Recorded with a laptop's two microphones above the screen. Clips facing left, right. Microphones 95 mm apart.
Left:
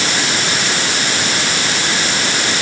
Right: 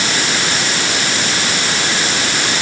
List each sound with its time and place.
Only background noise.